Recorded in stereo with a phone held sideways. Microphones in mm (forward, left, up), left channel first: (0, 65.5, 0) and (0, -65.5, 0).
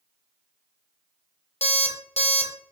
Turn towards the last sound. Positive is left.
turn(degrees=55)  # may be behind; listen again after turning